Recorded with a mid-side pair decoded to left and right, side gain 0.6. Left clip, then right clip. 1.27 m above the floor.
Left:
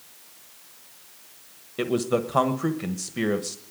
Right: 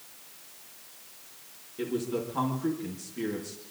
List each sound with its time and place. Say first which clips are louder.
1.8 s a man speaking: left 7 dB; 65° left, 1.2 m